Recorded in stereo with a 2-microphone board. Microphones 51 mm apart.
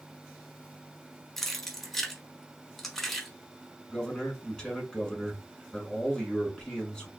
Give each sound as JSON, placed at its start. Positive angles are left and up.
{"t": 1.4, "sound": "keys jangling", "side_deg": 5, "distance_m": 0.7}
{"t": 3.9, "sound": "a man speaking", "side_deg": 20, "distance_m": 1.3}